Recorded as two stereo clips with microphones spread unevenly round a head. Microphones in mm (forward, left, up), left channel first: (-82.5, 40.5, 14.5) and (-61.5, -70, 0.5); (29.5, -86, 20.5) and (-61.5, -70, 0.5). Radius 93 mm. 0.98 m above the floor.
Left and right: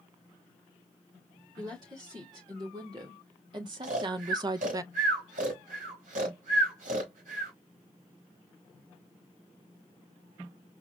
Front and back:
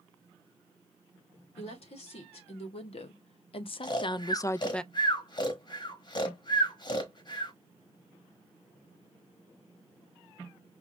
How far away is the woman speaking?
About 1.9 m.